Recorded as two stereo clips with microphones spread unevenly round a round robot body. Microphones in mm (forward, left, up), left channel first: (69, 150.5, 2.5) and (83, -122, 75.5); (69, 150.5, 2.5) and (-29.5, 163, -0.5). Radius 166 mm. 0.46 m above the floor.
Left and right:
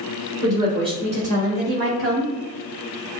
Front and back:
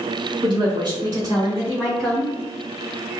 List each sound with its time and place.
0.4 s a woman speaking: 175° right, 1.8 m; by 2.3 s 85° right, 1.3 m